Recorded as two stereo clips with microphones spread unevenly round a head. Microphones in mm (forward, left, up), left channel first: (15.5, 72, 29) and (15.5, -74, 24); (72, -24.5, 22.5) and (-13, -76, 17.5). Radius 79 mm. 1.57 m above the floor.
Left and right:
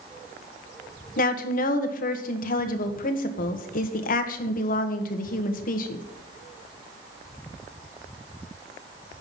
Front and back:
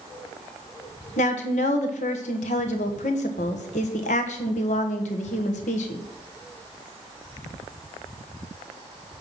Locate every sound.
1.2 s a woman speaking: 60° left, 1.3 m